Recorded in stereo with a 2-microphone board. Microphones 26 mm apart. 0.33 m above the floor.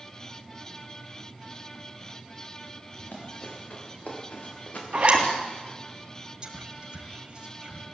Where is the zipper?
40° right (ahead or behind), 3 m.